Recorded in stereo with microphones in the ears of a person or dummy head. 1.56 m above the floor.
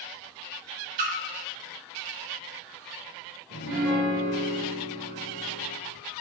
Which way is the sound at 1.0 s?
45° right (ahead or behind).